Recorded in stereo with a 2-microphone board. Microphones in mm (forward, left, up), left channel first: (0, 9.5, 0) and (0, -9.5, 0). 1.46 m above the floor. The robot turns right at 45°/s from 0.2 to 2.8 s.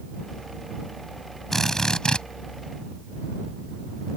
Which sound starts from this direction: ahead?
A drill, at 1.5 s.